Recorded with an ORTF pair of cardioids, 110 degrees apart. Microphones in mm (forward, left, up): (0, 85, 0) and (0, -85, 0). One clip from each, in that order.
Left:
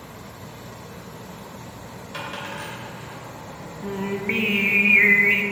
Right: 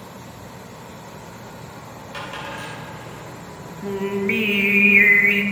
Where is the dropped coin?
5° left, 3 m.